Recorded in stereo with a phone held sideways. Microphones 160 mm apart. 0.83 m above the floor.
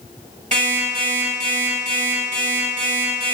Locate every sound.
0.5 s an alarm clock: 55° right (ahead or behind), 1.4 m